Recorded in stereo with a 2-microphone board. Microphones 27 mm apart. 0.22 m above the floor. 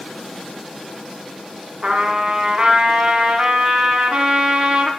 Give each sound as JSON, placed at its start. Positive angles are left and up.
{"t": 1.8, "sound": "a trumpet", "side_deg": -35, "distance_m": 1.3}